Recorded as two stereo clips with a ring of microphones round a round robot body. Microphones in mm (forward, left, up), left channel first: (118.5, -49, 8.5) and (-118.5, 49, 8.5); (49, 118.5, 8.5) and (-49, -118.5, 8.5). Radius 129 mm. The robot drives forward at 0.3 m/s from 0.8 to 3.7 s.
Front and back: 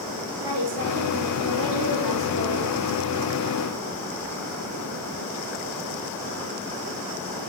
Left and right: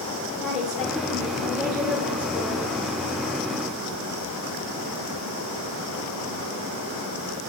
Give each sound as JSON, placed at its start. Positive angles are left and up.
{"t": 0.4, "sound": "a woman speaking", "azimuth_deg": 160, "distance_m": 5.5}